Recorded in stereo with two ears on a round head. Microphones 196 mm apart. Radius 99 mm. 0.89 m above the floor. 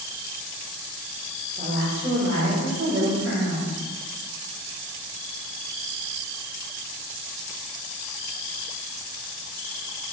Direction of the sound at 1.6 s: 25° right (ahead or behind).